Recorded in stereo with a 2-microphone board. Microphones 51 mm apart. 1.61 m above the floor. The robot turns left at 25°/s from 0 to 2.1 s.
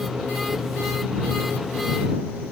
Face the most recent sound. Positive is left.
No sound to turn to.